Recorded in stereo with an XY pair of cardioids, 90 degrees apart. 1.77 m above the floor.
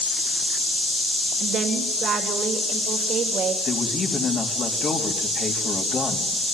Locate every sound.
1.4 s a woman speaking: 70° right, 3.5 m
3.6 s a man speaking: 45° left, 4 m